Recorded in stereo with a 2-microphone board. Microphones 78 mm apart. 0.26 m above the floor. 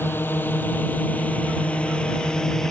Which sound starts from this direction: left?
A drone, at 0.0 s.